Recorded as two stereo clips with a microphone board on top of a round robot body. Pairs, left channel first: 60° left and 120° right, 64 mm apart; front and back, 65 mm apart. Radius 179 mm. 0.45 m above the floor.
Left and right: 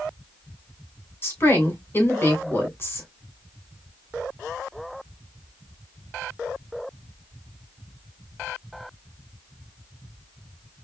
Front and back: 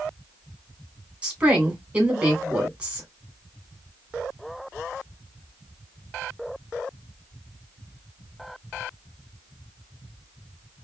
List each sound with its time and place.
1.2 s a woman speaking: 115° left, 3 m